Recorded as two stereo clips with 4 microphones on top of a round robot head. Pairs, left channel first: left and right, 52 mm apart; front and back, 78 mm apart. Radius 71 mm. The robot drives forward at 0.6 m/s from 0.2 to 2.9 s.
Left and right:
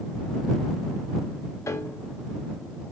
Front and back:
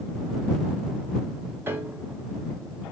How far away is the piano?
About 2 m.